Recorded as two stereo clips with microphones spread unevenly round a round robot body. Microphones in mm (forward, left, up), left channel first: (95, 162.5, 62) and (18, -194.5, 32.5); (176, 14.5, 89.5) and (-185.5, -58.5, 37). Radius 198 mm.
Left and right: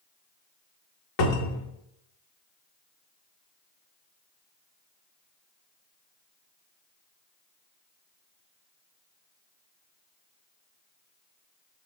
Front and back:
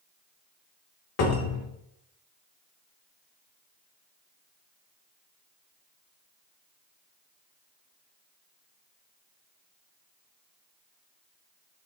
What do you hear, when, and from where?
1.2 s a cupboard door: 65° left, 0.8 m